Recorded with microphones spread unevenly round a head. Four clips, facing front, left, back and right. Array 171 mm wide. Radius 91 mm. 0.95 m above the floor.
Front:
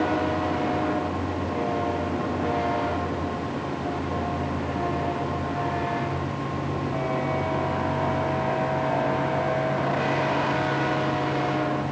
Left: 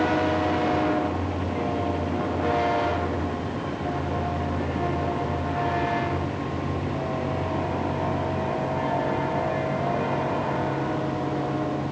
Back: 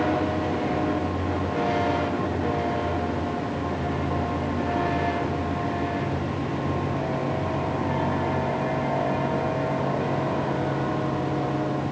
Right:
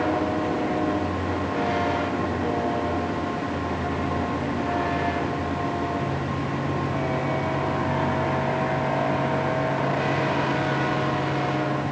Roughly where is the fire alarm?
No fire alarm in this recording.